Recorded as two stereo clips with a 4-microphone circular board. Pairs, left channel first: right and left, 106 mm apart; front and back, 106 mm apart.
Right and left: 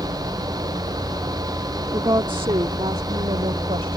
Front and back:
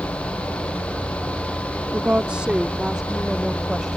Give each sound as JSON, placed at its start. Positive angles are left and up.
{"t": 1.9, "sound": "a woman speaking", "azimuth_deg": 115}